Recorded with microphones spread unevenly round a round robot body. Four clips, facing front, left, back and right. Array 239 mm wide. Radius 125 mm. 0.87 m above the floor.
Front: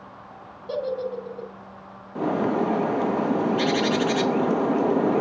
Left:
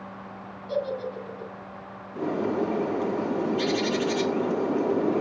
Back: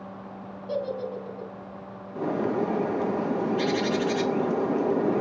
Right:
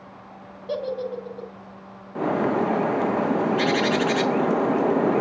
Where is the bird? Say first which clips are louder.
Right 4 dB, front 3 dB; 110° right, 0.9 m.